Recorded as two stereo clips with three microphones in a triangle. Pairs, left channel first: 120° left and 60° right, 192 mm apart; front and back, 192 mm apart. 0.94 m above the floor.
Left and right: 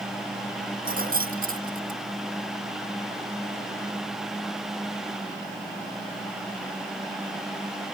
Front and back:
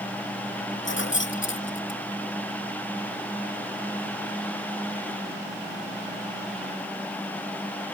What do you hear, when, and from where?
0.8 s keys jangling: 15° right